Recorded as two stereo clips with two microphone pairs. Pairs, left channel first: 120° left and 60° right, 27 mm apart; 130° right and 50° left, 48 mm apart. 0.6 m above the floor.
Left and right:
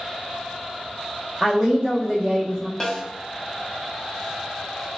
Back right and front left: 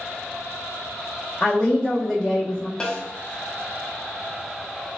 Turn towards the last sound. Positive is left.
turn(degrees=175)